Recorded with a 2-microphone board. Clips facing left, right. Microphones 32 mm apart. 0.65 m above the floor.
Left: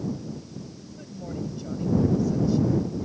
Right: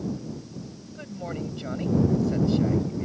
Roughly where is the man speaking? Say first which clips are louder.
Right 3 dB; right.